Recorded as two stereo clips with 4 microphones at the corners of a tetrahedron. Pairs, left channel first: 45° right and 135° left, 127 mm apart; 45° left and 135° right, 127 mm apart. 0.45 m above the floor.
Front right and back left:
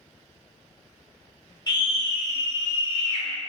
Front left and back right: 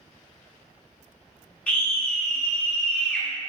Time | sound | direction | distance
1.7 | a scream | 30° right | 1.0 m